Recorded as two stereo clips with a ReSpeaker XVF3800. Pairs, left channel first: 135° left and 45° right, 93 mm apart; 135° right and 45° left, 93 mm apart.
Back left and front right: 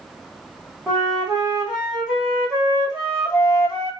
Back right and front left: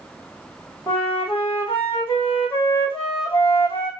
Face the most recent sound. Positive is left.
turn(degrees=-130)